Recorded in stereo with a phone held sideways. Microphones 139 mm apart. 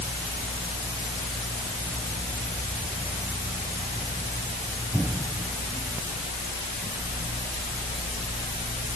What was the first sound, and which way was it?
Only background noise.